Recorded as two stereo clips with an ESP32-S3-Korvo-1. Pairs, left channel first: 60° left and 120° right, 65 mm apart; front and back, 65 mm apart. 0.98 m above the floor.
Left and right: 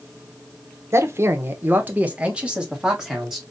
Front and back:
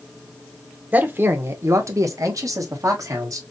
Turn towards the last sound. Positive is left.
turn(degrees=155)